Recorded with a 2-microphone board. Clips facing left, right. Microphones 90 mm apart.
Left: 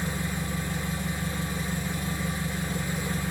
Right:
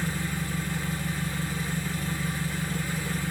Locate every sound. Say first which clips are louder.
0.0 s an engine running: even; 20° left (ahead or behind), 1.8 m